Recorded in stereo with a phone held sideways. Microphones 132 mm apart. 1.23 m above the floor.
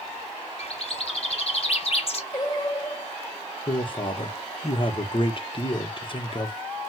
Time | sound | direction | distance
0.6 | a bird | 50° left (ahead or behind) | 0.7 m
2.3 | singing | 30° left (ahead or behind) | 1.1 m
3.7 | a man speaking | 40° left (ahead or behind) | 0.8 m